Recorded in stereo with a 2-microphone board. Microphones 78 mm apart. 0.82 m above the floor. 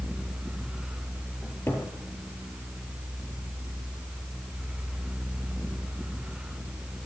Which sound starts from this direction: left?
A cupboard door, at 1.4 s.